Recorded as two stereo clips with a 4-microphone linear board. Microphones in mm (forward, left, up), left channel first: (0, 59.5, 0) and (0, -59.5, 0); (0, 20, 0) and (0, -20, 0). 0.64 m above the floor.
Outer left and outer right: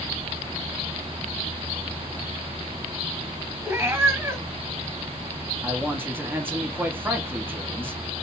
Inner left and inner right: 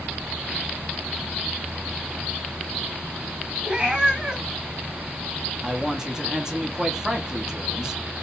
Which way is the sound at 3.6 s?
20° right (ahead or behind).